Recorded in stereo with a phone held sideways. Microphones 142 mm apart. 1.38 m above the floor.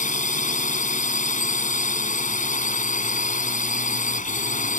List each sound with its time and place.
0.0 s a drone: 65° left (ahead or behind)